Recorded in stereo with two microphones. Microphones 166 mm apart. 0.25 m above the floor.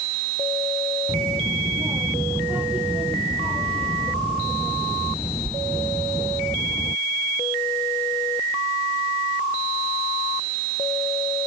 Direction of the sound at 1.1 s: 20° right (ahead or behind).